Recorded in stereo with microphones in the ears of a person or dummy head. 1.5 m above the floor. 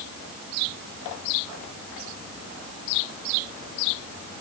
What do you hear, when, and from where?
Only background noise.